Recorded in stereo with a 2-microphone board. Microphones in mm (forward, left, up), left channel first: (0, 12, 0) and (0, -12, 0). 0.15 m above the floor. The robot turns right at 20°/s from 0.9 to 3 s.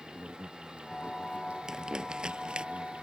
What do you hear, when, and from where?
0.0 s an insect: 130° right; by 3.0 s 85° right
1.7 s crumpling: 30° right (ahead or behind); by 2.7 s 45° right (ahead or behind)